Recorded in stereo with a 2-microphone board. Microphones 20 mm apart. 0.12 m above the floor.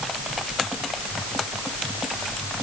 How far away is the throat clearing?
No throat clearing in this recording.